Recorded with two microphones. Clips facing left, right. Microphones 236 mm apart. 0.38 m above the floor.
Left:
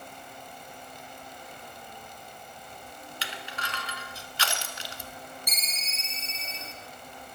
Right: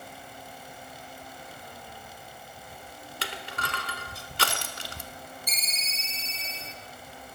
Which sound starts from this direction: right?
Crushing, at 3.2 s.